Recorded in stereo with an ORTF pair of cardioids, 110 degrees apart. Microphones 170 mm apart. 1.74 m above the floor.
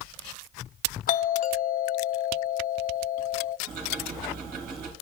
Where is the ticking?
65° right, 2.5 m.